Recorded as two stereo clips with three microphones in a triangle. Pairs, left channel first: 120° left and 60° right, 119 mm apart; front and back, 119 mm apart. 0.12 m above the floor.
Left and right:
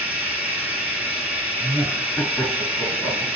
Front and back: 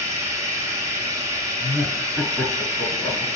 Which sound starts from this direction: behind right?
Running water, at 0.0 s.